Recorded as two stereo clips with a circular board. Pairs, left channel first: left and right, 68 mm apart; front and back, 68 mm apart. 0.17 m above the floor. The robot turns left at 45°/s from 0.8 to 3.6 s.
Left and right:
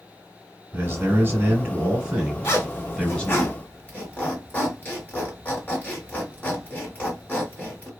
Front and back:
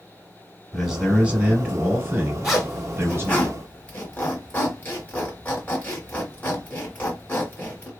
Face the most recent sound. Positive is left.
turn(degrees=45)